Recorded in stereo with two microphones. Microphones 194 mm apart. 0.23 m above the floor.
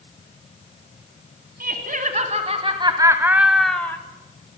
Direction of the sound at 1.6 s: 50° right (ahead or behind).